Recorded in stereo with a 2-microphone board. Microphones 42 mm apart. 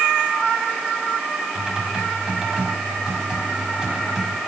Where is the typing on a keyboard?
20° right (ahead or behind), 5 m.